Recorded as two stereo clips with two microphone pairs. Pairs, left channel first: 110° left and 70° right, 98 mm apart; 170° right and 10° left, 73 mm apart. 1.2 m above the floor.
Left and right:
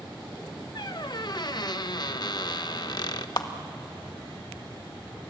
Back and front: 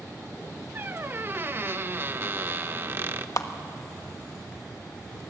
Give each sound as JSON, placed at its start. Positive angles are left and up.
{"t": 0.8, "sound": "a squeak", "azimuth_deg": 65, "distance_m": 0.8}
{"t": 3.4, "sound": "a clap", "azimuth_deg": 155, "distance_m": 1.3}